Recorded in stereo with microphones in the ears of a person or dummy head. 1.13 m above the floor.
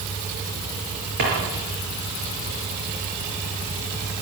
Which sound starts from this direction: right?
A drawer, at 1.2 s.